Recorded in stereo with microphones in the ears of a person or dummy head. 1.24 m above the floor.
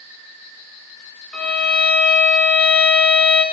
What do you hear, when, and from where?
1.3 s a violin: centre (ahead or behind), 0.6 m